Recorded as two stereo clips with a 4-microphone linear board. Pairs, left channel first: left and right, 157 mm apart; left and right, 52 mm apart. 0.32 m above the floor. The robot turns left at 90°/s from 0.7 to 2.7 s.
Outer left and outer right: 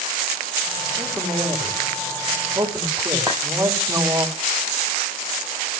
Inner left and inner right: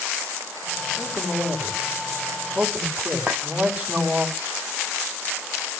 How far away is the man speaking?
About 1.9 m.